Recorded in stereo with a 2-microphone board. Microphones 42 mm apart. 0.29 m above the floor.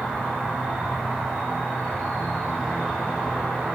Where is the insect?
25° right (ahead or behind), 1.5 m.